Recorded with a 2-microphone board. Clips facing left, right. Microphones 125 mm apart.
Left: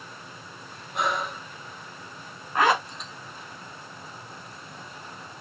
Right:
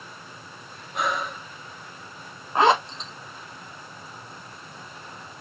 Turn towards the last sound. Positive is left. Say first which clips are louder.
# right 3 dB
turn(degrees=-25)  # may be behind; listen again after turning